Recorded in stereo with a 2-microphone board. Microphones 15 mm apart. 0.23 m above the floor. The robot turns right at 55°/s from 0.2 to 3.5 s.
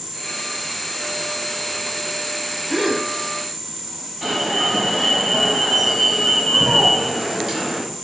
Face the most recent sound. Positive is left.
turn(degrees=-15)  # may be behind; listen again after turning